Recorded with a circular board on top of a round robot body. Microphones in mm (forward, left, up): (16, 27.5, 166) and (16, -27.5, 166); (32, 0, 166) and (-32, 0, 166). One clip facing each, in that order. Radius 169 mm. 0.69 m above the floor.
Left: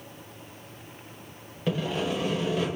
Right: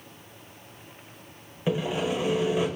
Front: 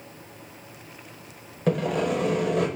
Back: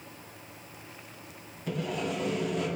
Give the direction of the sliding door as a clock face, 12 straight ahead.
I don't hear a sliding door.